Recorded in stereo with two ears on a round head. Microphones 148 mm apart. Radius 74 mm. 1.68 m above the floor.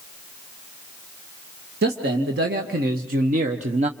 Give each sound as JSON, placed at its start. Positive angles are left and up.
{"t": 1.8, "sound": "a man speaking", "side_deg": -70, "distance_m": 2.5}